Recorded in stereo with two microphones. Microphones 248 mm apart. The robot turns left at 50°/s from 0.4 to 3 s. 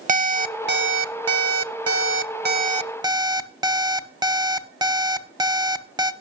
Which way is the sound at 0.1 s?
35° right.